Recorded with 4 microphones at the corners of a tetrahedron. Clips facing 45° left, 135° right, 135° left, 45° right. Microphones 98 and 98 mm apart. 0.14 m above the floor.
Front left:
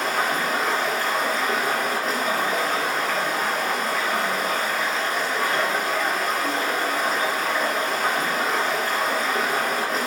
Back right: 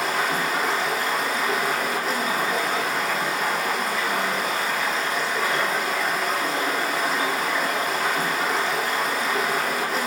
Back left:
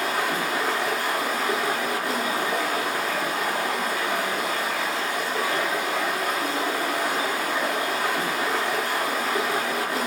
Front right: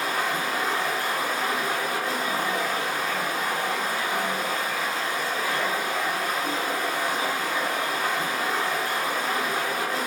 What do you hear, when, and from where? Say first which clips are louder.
0.0 s running water: even, back left 1 dB; 140° left, 1.0 m